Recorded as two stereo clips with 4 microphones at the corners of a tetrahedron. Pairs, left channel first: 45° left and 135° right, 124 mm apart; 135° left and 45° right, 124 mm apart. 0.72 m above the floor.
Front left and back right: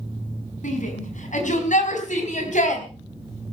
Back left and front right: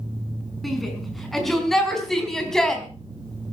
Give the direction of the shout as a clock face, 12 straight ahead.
10 o'clock.